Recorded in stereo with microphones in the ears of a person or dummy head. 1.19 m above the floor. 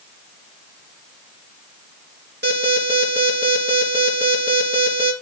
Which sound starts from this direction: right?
An alarm, at 2.4 s.